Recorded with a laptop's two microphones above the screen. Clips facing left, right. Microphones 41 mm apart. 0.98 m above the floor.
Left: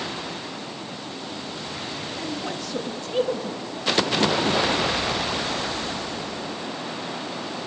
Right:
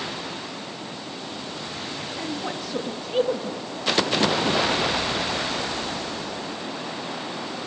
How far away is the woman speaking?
About 1.3 m.